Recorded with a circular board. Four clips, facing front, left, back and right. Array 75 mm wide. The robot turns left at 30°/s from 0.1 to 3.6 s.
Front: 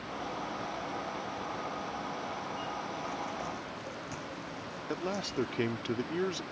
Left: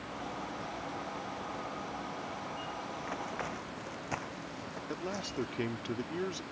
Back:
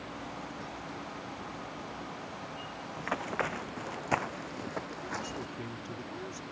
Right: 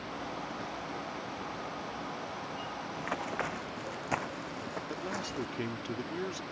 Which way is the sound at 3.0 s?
150° right.